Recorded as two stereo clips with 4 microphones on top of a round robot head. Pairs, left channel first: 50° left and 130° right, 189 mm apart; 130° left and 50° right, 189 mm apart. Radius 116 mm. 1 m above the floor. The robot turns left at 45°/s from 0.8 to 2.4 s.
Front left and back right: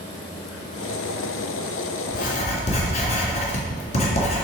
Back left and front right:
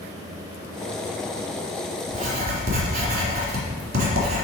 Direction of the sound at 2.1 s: 5° left.